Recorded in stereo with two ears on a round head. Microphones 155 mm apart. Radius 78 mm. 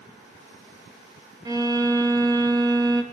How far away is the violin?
About 3 m.